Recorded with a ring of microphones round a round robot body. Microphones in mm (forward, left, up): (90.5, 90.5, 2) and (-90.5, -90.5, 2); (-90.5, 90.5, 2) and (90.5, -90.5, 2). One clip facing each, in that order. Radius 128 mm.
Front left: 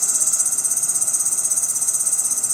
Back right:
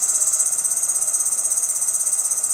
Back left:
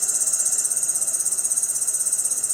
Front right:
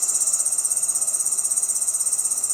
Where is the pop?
No pop in this recording.